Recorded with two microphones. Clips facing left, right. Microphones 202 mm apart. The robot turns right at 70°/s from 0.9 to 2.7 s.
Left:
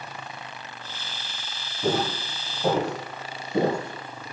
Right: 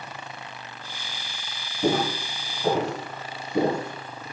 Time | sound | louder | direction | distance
1.8 | footsteps | right 2 dB | 25° right (ahead or behind) | 1.8 m